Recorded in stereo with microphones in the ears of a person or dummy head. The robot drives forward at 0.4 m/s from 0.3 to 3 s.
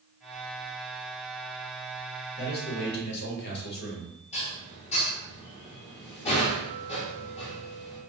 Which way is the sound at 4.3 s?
30° left (ahead or behind).